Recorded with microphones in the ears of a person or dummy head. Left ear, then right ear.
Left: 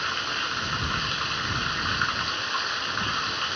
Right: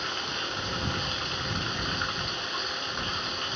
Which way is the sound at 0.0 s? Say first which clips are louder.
Left 4 dB; 25° left (ahead or behind).